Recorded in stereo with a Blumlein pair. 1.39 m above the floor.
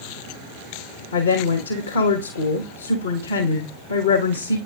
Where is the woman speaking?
70° left, 1.2 m.